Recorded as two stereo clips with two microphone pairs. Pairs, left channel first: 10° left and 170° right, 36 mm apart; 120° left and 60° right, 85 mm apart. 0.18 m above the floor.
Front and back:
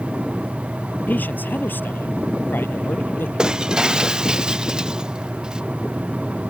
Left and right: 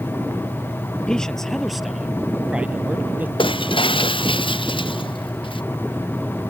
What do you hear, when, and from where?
1.1 s a man speaking: 40° left; by 3.3 s 10° left
3.4 s breaking glass: 120° left